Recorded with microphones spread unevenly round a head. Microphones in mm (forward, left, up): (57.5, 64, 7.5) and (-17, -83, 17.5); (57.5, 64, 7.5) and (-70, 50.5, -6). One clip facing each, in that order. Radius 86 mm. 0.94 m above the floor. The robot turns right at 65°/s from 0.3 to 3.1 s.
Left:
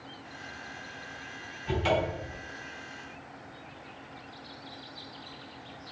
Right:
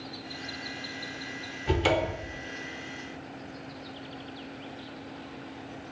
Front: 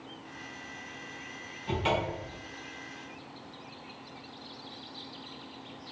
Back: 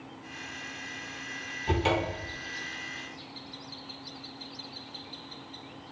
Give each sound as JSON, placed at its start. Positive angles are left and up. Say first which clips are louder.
{"t": 1.7, "sound": "a cupboard door", "louder": "right 2 dB, back 2 dB", "azimuth_deg": -125, "distance_m": 0.8}